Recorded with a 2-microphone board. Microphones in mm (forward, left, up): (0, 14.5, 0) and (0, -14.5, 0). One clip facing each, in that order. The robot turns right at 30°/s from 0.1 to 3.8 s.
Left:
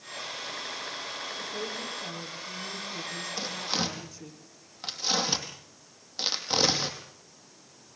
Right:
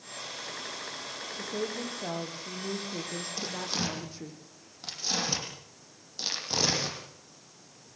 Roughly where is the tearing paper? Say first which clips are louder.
Left 3 dB; centre.